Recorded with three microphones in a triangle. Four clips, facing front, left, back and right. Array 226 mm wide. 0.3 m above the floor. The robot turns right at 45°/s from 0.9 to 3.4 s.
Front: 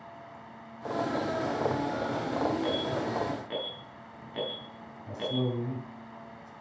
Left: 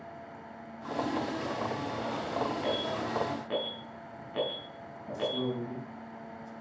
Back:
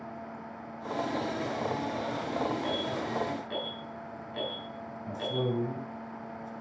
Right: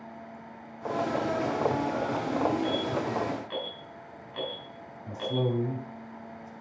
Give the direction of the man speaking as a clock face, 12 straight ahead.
3 o'clock.